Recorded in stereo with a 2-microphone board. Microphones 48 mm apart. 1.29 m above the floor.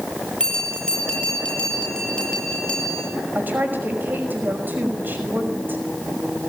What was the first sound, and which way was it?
A bell, 20° left (ahead or behind).